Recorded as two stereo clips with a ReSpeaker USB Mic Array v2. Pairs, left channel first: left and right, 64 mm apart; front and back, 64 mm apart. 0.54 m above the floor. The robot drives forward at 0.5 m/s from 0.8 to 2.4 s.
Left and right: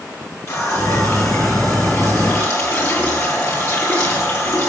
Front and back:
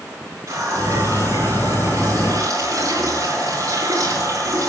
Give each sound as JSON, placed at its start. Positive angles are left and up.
{"t": 0.5, "sound": "a running tap", "azimuth_deg": 135, "distance_m": 6.5}